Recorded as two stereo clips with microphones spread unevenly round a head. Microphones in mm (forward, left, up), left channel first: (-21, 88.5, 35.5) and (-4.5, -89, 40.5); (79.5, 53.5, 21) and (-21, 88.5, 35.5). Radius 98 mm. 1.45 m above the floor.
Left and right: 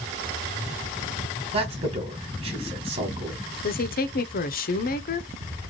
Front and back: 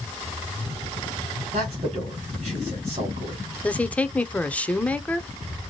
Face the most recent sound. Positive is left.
turn(degrees=55)